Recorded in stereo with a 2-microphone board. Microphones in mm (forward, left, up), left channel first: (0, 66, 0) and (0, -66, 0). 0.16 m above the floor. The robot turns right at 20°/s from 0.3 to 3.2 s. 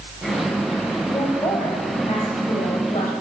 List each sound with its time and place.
1.1 s a woman speaking: 35° left, 4.5 m; by 3.1 s 75° left, 4.5 m